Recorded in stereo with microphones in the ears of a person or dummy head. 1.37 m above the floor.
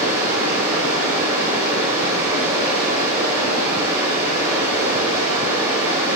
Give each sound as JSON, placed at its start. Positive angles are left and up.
{"t": 0.0, "sound": "running water", "side_deg": -15, "distance_m": 2.5}